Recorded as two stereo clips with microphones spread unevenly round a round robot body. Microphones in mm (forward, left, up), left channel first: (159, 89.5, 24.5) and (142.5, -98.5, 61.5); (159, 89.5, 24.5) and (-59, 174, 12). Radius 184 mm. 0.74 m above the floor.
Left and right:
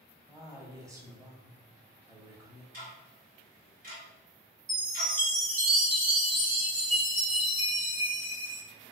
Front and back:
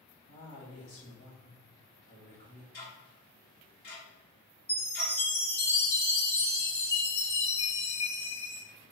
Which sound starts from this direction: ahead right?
Ticking, at 2.7 s.